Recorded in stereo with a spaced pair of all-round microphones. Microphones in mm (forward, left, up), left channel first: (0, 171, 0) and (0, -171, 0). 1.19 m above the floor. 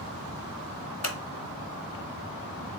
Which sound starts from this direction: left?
Scissors, at 1.0 s.